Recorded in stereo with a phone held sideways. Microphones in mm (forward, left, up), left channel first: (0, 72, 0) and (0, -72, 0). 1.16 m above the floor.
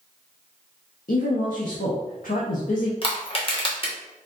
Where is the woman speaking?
80° left, 1.1 m.